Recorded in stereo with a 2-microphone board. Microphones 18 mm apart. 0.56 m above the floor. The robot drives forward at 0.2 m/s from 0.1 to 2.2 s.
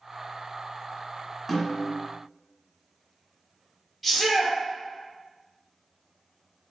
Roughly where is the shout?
Centre.